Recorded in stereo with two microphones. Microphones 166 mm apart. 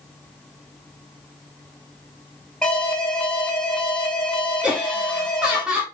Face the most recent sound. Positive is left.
turn(degrees=-5)  # may be behind; listen again after turning